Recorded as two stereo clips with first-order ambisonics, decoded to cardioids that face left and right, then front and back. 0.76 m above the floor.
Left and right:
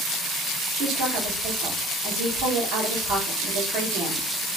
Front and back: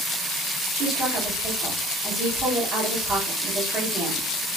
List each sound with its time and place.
0.7 s a woman speaking: 120° right, 1.6 m